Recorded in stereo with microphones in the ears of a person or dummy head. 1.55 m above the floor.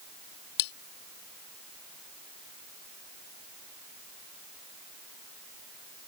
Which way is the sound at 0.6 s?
55° left (ahead or behind).